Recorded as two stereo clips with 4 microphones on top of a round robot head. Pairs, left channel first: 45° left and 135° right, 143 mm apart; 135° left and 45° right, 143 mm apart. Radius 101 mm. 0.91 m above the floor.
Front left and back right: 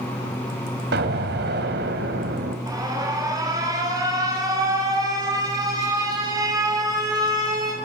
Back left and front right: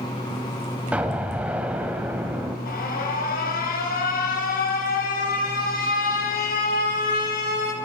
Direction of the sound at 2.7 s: 155° left.